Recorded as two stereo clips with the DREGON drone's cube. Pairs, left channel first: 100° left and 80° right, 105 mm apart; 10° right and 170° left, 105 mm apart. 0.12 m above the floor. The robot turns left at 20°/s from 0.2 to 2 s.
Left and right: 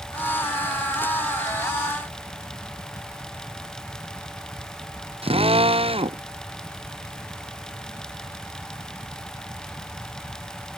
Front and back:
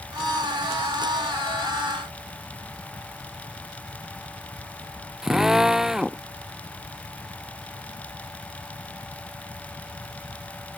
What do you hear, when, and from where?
5.2 s a drill: 105° right